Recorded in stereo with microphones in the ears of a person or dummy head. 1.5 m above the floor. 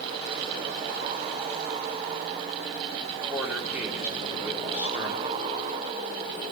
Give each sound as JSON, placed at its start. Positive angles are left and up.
{"t": 3.1, "sound": "a man speaking", "side_deg": -5, "distance_m": 4.5}